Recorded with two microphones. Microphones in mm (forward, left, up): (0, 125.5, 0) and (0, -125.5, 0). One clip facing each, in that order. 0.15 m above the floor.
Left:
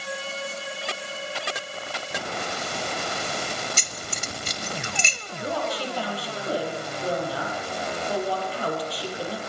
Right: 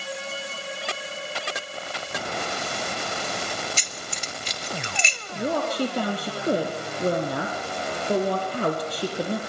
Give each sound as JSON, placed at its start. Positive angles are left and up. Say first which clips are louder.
{"t": 3.8, "sound": "keys jangling", "louder": "left 1 dB", "side_deg": 50, "distance_m": 1.6}
{"t": 5.3, "sound": "a woman speaking", "louder": "right 4 dB", "side_deg": -45, "distance_m": 4.5}